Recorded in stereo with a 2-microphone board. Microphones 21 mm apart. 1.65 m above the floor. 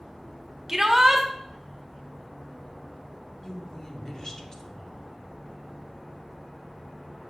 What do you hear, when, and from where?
0.7 s a shout: 20° right (ahead or behind), 0.6 m
3.4 s a woman speaking: 30° left (ahead or behind), 0.7 m